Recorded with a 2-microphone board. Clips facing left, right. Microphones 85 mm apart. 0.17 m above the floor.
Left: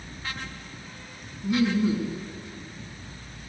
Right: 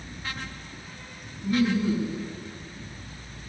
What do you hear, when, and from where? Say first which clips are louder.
1.4 s laughter: even; 10° left (ahead or behind), 1.3 m